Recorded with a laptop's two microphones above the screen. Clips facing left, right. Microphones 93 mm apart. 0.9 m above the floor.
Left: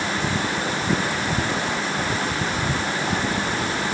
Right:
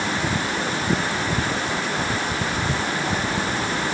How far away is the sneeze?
No sneeze in this recording.